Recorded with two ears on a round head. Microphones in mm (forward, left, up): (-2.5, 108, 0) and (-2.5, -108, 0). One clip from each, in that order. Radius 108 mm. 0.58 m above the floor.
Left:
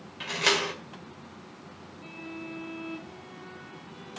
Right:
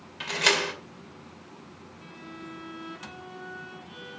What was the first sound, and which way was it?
A door slam, 15° right (ahead or behind).